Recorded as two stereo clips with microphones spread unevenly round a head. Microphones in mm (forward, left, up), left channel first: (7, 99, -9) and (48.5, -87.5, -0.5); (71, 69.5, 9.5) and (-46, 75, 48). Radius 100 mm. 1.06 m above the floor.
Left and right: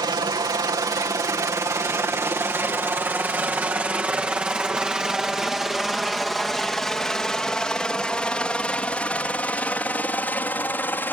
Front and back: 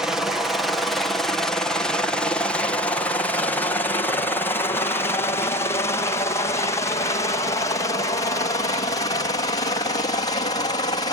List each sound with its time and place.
0.0 s a helicopter: 50° right; by 11.1 s 25° left